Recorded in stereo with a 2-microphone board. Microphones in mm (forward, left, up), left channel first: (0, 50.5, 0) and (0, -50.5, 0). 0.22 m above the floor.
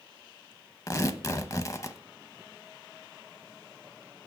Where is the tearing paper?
35° left (ahead or behind), 0.6 m.